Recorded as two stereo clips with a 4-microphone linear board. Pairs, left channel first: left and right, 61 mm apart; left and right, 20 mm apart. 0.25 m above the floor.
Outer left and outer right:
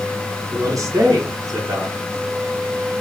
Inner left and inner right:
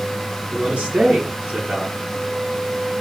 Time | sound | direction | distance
0.5 | a man speaking | 65° right (ahead or behind) | 3 m